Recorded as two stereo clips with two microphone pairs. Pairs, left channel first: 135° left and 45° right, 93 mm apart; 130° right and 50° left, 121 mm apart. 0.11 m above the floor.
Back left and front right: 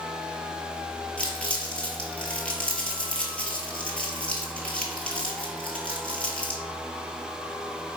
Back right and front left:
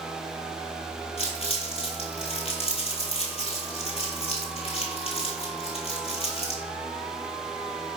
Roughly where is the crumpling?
Behind right.